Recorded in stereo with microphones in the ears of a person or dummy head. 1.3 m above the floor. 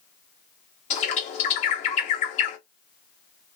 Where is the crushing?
I don't hear crushing.